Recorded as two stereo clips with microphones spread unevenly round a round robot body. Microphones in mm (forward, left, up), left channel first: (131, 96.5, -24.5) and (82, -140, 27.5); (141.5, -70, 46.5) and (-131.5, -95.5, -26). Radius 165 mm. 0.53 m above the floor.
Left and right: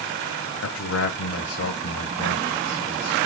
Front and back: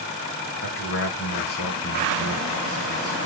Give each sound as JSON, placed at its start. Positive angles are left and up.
{"t": 0.6, "sound": "a man speaking", "azimuth_deg": 55, "distance_m": 2.5}